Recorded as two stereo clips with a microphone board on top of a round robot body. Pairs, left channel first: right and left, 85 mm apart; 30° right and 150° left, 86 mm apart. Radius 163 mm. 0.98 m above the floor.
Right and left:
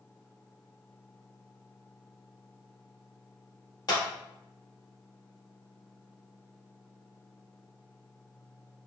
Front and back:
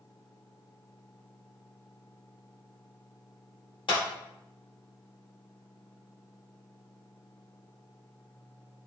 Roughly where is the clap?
Ahead right.